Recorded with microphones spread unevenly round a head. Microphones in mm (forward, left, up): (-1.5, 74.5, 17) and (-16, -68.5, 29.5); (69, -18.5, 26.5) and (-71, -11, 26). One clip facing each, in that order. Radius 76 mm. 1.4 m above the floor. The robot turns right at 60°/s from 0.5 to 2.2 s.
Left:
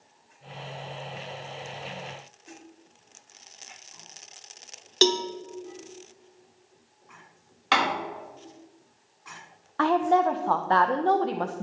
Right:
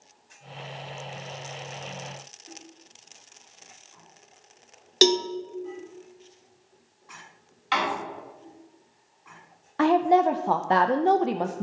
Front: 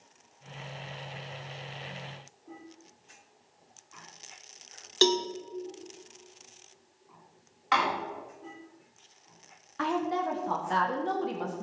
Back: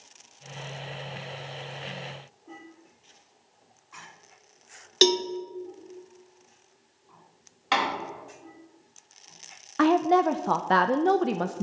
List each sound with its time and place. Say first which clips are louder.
5.0 s a cowbell: right 2 dB, back 3 dB; 135° right, 1.0 m
7.7 s a door slam: left 2 dB, back 1 dB; 115° left, 4 m
9.8 s a woman speaking: right 2 dB, back 9 dB; 165° right, 0.6 m